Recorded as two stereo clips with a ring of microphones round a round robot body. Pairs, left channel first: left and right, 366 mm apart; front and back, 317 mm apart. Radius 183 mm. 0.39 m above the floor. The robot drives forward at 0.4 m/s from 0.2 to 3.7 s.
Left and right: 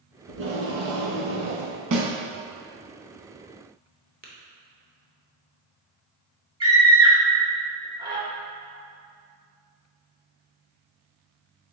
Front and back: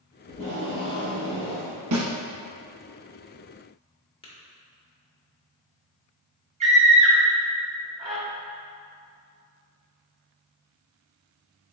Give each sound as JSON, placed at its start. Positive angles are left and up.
{"t": 0.3, "sound": "tape being pulled", "azimuth_deg": -60, "distance_m": 1.3}
{"t": 1.9, "sound": "a snare drum", "azimuth_deg": -135, "distance_m": 1.0}
{"t": 4.2, "sound": "tapping", "azimuth_deg": -50, "distance_m": 0.8}
{"t": 6.6, "sound": "a scream", "azimuth_deg": -145, "distance_m": 0.8}